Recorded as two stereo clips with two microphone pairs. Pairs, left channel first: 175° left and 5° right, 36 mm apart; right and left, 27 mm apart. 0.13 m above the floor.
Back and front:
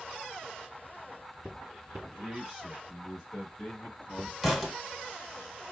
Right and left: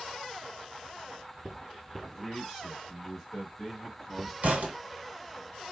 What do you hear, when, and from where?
2.0 s a man speaking: 25° left, 1.7 m; by 4.3 s 175° left, 1.9 m
4.4 s a thud: 85° left, 1.4 m